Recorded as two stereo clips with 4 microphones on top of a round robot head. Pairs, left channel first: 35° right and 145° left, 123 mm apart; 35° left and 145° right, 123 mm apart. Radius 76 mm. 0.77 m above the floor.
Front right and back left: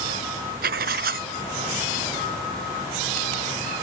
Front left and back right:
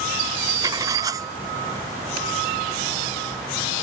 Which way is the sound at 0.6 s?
150° left.